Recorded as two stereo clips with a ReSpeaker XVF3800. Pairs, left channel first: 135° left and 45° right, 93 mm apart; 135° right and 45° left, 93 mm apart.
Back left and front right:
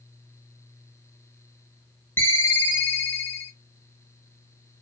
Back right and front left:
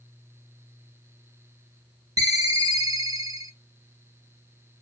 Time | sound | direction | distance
2.2 | a ringtone | 75° left | 0.8 m